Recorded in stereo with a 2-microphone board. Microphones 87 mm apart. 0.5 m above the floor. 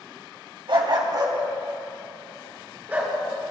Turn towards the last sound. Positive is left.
turn(degrees=-20)  # may be behind; listen again after turning